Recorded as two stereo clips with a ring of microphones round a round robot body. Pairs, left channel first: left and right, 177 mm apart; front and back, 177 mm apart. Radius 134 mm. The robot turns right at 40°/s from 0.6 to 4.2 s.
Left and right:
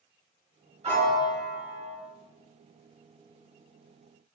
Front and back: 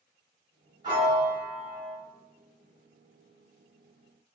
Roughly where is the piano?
Behind right.